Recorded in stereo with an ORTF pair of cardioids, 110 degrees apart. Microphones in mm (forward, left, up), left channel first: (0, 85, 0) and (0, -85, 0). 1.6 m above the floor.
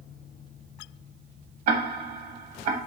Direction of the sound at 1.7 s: 70° right.